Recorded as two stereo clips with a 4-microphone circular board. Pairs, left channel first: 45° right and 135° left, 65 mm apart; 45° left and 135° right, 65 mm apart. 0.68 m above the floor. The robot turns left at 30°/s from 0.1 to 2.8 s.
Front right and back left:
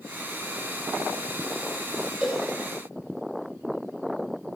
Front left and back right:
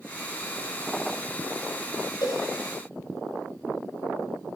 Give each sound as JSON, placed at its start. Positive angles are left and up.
{"t": 2.2, "sound": "a cowbell", "azimuth_deg": 60, "distance_m": 3.5}